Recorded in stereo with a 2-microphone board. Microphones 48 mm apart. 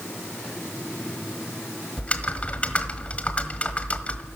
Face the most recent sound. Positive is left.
turn(degrees=25)  # may be behind; listen again after turning